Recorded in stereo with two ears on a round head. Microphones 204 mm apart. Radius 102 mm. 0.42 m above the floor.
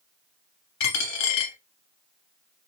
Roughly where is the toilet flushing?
I don't hear a toilet flushing.